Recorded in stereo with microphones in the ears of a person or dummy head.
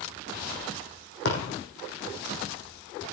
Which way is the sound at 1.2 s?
70° left (ahead or behind).